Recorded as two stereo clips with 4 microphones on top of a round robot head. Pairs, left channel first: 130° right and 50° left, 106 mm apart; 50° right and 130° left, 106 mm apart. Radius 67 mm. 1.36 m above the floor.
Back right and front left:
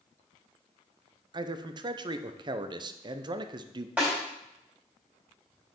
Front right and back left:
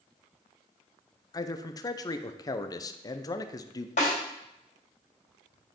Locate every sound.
1.3 s a man speaking: 5° left, 0.6 m
4.0 s a snare drum: 30° right, 4 m